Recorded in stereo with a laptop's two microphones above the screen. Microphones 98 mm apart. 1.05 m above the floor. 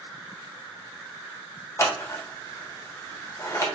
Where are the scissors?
30° left (ahead or behind), 0.5 m.